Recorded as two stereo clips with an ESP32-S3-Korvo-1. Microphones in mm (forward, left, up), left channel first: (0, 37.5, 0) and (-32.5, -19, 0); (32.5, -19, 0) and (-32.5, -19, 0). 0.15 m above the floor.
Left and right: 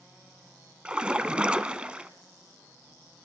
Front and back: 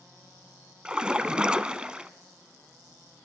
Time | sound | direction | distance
0.8 | a splash | 145° right | 0.7 m